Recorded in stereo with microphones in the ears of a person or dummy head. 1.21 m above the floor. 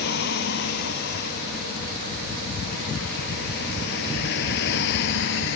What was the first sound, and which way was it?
A vehicle, 60° left (ahead or behind).